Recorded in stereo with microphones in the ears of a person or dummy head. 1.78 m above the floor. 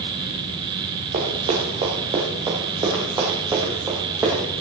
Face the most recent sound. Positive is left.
turn(degrees=-15)  # may be behind; listen again after turning